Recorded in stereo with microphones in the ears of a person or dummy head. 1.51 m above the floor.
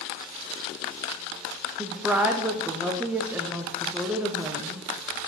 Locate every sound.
1.8 s a woman speaking: 5° right (ahead or behind), 0.5 m